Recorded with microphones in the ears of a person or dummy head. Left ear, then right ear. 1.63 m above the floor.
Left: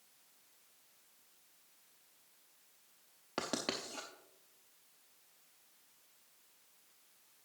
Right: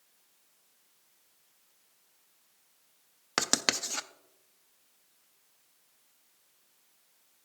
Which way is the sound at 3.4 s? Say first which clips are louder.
Right 10 dB; 55° right (ahead or behind).